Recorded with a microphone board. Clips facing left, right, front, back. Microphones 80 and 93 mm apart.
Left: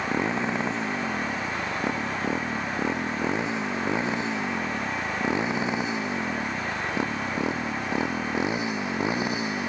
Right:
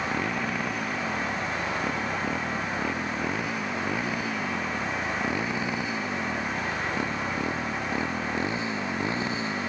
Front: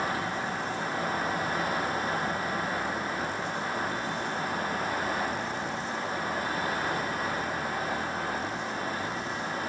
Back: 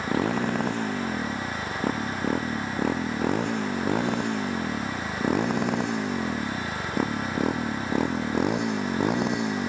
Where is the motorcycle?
155° left; by 9.7 s 165° left.